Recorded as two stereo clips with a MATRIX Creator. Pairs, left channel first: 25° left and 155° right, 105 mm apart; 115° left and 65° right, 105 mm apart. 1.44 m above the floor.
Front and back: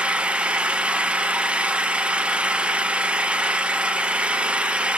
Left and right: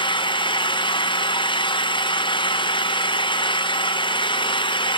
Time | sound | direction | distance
0.0 | an engine running | 125° left | 0.8 m